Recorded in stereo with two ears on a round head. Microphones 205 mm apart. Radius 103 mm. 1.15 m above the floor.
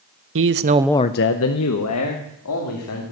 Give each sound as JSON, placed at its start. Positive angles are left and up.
{"t": 0.3, "sound": "a man speaking", "side_deg": -60, "distance_m": 1.0}